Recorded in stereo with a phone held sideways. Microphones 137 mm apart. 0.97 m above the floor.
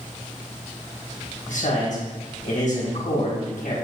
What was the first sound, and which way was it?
A man speaking, 70° left (ahead or behind).